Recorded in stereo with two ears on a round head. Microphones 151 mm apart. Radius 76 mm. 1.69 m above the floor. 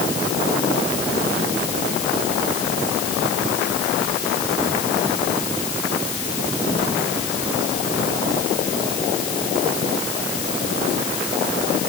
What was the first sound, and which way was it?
Only background noise.